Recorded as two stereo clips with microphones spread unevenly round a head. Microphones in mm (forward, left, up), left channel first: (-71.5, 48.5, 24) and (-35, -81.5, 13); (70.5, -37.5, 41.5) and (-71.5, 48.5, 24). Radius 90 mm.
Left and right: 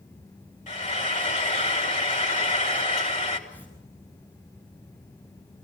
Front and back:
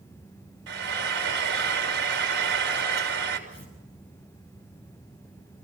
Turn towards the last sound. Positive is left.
turn(degrees=25)